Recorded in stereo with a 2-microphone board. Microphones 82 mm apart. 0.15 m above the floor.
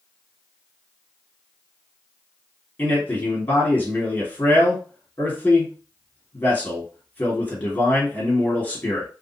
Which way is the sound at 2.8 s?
25° left (ahead or behind).